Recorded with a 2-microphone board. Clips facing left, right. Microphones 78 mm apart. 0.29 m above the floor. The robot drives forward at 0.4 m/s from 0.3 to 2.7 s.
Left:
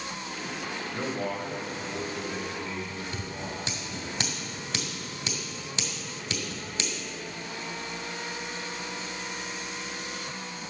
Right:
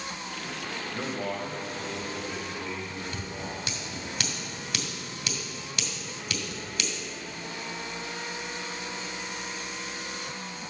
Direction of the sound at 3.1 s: 25° left (ahead or behind).